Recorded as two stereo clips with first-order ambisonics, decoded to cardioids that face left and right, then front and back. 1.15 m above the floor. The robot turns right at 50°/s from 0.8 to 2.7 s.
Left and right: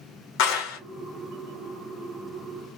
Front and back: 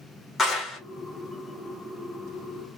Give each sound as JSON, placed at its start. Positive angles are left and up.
{"t": 0.4, "sound": "a clap", "azimuth_deg": 75, "distance_m": 0.9}